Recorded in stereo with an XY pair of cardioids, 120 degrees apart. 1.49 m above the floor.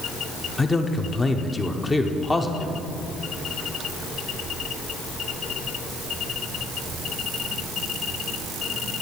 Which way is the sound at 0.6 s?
20° left.